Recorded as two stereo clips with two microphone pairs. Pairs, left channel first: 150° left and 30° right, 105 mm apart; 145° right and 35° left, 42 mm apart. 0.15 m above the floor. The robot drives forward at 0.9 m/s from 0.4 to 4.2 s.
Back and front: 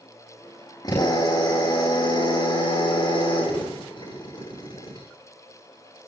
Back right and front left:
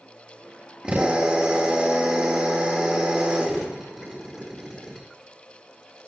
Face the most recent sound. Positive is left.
turn(degrees=115)